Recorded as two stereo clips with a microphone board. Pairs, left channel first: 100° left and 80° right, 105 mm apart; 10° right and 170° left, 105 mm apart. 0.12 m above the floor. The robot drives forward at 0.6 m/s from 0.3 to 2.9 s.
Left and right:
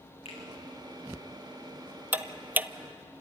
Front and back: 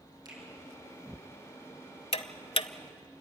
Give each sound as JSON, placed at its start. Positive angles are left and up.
{"t": 0.2, "sound": "a finger snap", "azimuth_deg": 120, "distance_m": 4.5}
{"t": 2.1, "sound": "ticking", "azimuth_deg": -5, "distance_m": 0.9}